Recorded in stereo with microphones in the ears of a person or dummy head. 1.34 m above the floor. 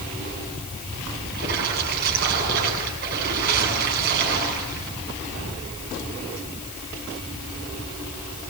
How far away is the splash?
About 7.5 m.